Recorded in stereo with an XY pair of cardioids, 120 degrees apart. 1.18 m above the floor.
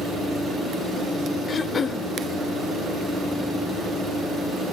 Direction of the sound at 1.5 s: 30° left.